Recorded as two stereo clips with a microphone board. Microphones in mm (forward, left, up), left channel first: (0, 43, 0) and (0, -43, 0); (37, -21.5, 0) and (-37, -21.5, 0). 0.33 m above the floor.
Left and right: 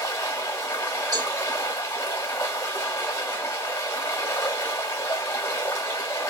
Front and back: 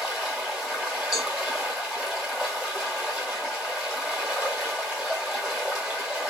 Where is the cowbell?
100° right, 1.6 m.